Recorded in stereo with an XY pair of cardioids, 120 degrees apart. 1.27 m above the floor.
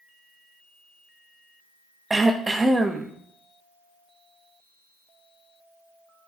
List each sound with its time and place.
2.1 s throat clearing: 15° right, 0.9 m